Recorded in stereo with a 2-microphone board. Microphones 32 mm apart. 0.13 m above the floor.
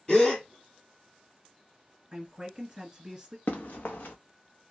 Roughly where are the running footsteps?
Left.